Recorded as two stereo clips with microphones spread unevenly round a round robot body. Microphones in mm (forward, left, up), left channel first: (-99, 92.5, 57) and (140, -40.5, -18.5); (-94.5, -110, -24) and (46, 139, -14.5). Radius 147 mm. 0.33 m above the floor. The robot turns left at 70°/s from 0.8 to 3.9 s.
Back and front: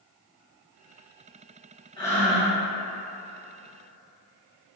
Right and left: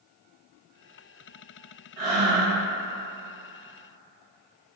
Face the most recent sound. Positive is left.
turn(degrees=-65)